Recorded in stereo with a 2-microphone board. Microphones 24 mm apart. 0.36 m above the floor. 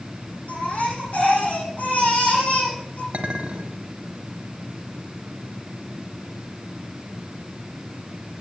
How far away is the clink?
About 1.8 m.